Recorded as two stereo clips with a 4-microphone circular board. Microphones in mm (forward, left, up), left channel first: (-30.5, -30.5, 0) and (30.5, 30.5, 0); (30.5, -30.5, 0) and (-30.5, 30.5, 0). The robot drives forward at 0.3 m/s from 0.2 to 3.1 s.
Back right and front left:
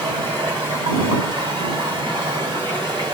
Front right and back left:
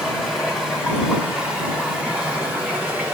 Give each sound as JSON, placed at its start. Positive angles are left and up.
{"t": 0.0, "sound": "running water", "azimuth_deg": 50, "distance_m": 2.0}